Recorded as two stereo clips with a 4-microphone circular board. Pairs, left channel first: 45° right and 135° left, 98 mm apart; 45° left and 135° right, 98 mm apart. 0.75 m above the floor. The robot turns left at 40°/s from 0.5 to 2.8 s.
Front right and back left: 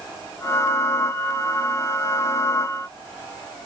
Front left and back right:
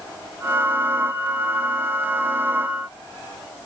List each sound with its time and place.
Only background noise.